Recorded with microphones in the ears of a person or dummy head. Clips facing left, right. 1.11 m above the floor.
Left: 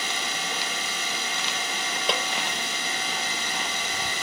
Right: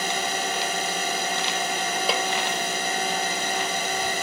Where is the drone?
35° right (ahead or behind).